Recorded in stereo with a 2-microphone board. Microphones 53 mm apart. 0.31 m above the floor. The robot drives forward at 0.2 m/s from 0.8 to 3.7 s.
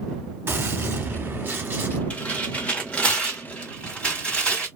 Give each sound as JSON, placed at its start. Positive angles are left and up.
{"t": 0.5, "sound": "a gunshot", "side_deg": -45, "distance_m": 1.0}
{"t": 2.1, "sound": "tearing paper", "side_deg": 30, "distance_m": 1.3}